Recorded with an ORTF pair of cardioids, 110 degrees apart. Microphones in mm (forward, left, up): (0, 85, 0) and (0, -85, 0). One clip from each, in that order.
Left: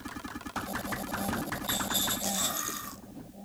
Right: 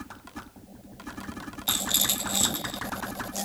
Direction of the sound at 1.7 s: 65° right.